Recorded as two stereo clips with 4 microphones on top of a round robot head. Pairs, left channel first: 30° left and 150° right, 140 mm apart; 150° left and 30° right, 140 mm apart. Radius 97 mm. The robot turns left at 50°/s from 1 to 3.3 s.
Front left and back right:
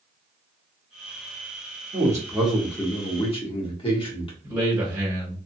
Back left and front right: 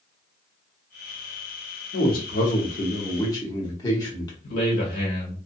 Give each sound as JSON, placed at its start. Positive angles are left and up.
{"t": 1.9, "sound": "a man speaking", "azimuth_deg": 155, "distance_m": 1.2}
{"t": 4.4, "sound": "a man speaking", "azimuth_deg": 140, "distance_m": 1.8}